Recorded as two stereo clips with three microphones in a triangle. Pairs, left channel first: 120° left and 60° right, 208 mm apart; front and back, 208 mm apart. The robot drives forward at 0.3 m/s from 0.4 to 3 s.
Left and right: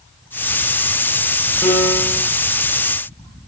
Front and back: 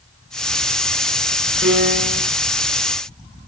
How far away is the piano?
About 7 m.